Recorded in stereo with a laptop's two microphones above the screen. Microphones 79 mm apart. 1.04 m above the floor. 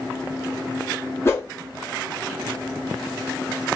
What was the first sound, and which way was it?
A whoosh, 30° left (ahead or behind).